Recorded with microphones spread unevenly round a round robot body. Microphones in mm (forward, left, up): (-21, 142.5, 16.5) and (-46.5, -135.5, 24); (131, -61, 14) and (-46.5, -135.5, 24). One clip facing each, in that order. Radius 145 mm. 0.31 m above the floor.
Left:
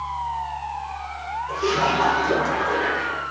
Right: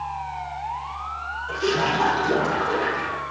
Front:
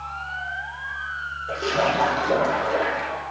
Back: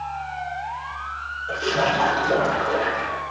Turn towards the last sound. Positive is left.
turn(degrees=-50)